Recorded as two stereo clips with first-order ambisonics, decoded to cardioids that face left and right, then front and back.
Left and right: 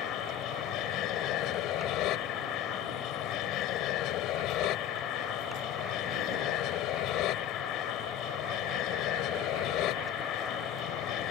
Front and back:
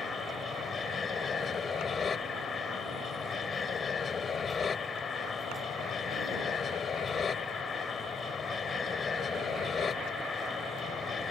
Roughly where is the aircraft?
Ahead left.